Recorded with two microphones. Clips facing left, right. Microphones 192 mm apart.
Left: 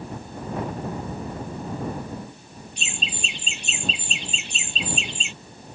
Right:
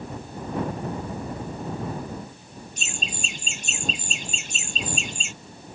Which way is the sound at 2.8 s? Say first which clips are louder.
Left 1 dB; 45° right (ahead or behind).